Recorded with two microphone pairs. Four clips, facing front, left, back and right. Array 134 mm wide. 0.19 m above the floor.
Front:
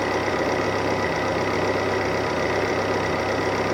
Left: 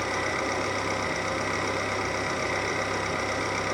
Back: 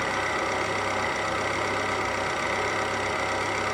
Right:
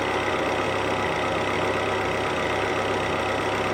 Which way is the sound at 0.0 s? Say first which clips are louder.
Right 5 dB, front 5 dB; 25° right.